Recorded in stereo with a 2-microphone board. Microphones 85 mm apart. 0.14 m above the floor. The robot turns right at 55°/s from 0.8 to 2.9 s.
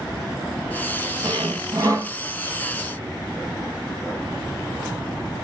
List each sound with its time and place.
1.2 s sawing: 80° right, 0.9 m; by 2.1 s 30° right, 0.9 m